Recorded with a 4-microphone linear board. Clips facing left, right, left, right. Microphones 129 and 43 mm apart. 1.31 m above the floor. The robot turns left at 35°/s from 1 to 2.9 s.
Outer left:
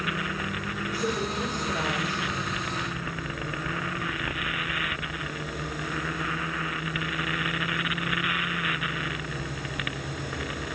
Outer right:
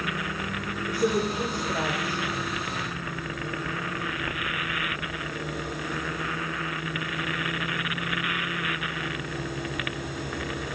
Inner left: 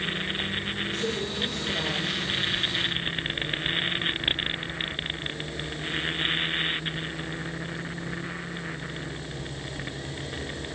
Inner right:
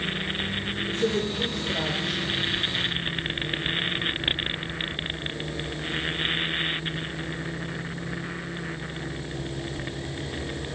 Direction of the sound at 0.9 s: 45° right (ahead or behind).